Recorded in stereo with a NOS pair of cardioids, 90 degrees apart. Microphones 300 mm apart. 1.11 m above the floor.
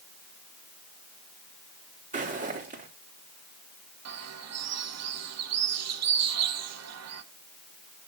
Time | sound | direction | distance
2.1 | footsteps | 25° right | 4 m
4.0 | a bird | 60° right | 1.3 m